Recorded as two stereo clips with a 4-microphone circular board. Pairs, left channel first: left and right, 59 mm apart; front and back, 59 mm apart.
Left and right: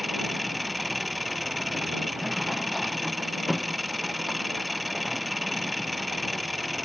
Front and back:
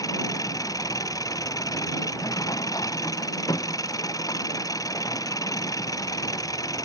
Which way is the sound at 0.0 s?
Straight ahead.